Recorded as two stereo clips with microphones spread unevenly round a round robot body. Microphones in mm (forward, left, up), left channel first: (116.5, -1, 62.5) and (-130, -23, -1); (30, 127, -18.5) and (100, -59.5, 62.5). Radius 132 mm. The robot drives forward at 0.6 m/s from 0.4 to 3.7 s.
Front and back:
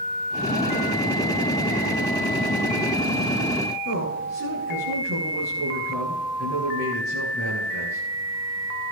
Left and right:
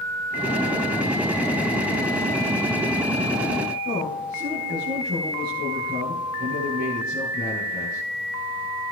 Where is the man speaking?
135° right, 7 m.